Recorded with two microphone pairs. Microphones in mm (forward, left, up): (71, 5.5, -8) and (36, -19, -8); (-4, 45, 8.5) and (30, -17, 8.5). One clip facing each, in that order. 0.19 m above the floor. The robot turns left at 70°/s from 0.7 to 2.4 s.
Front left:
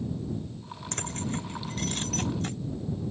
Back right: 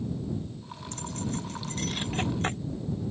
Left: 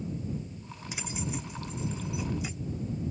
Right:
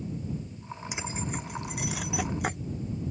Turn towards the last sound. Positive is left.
turn(degrees=-95)